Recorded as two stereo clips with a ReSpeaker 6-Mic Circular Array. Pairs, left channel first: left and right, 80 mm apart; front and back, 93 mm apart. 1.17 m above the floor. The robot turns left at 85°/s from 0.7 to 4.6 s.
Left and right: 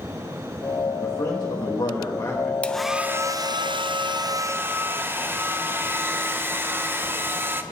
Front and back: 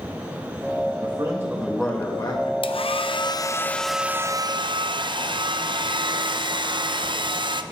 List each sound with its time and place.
1.0 s a man speaking: 150° left, 1.4 m; by 2.5 s 20° left, 1.4 m
2.6 s a hair dryer: 20° left, 0.6 m; by 7.6 s 150° right, 0.6 m